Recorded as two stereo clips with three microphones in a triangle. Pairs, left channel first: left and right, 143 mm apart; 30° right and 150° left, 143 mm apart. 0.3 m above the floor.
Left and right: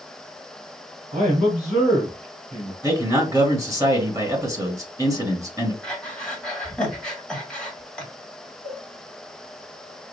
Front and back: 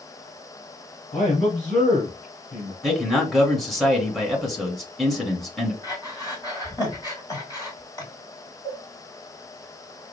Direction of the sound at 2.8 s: 120° right.